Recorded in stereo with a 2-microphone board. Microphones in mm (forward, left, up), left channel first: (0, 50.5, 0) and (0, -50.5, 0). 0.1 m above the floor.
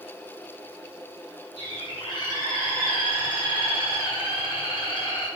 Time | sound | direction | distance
1.6 | a bird | 45° left (ahead or behind) | 2.5 m